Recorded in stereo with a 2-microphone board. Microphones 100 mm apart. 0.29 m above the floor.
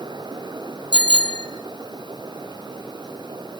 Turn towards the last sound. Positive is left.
turn(degrees=-55)  # may be behind; listen again after turning